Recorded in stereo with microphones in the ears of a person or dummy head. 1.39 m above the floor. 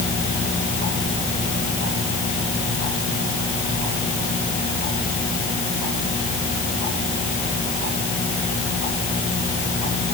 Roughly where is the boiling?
I don't hear boiling.